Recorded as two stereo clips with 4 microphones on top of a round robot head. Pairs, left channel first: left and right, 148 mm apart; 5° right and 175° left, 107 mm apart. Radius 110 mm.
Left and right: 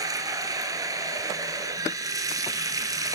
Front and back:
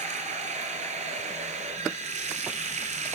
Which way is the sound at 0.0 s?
155° right.